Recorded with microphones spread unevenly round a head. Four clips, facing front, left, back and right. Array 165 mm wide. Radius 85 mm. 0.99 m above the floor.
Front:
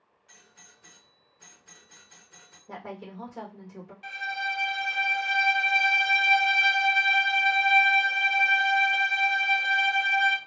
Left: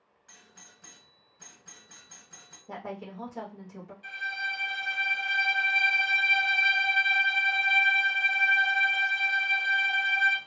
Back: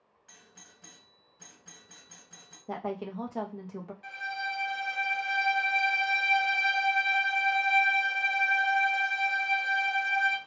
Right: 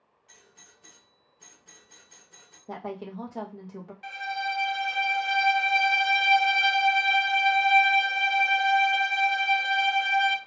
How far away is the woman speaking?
About 0.9 m.